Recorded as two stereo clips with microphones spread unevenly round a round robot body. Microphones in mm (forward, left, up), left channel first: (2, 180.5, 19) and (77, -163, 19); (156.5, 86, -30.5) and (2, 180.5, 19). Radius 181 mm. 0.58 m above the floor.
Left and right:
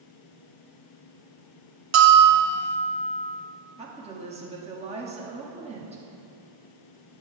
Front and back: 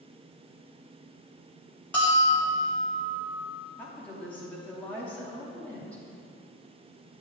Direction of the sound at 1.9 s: 100° right.